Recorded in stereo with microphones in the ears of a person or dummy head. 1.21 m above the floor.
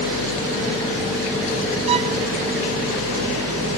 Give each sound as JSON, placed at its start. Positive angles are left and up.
{"t": 1.9, "sound": "a violin", "side_deg": -35}